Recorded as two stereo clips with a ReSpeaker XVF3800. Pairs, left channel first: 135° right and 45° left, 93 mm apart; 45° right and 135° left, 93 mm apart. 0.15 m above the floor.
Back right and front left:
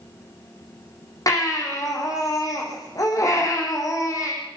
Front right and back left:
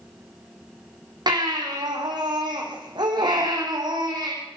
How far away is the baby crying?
About 6.5 m.